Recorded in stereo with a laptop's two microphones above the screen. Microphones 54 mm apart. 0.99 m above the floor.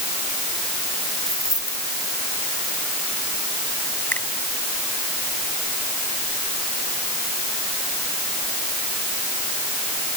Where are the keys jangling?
60° left (ahead or behind).